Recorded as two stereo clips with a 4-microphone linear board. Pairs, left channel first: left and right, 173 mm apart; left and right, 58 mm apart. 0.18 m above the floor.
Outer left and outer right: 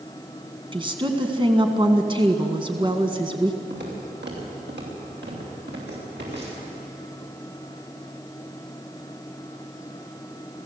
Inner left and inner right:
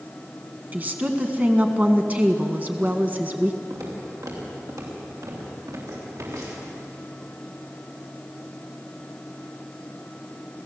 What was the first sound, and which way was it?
A woman speaking, 30° right (ahead or behind).